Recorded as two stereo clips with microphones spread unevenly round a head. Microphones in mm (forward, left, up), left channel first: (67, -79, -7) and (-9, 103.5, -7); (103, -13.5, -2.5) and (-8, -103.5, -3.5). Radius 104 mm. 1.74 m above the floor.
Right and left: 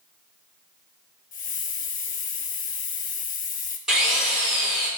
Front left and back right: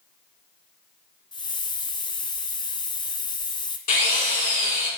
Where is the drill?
25° left, 4.5 m.